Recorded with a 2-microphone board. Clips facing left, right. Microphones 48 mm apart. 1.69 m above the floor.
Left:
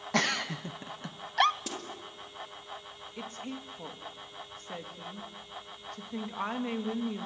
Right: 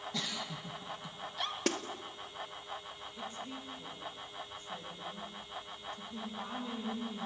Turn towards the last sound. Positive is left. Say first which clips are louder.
# left 4 dB
turn(degrees=85)